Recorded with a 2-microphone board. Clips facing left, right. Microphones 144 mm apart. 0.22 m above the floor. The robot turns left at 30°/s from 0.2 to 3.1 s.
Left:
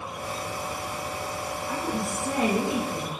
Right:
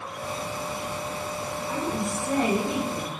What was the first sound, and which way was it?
A woman speaking, 165° right.